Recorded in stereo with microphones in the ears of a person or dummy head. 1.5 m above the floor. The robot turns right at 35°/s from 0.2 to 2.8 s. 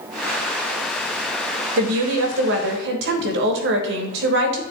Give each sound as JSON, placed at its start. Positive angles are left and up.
{"t": 1.8, "sound": "a woman speaking", "azimuth_deg": -105, "distance_m": 1.5}